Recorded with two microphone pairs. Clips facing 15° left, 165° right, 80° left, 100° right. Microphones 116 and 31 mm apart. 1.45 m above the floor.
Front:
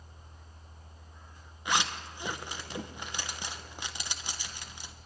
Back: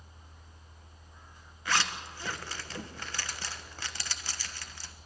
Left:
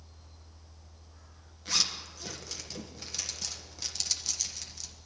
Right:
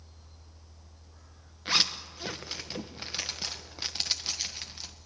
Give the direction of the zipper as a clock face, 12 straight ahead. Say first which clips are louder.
Front 1 dB, right 4 dB; 2 o'clock.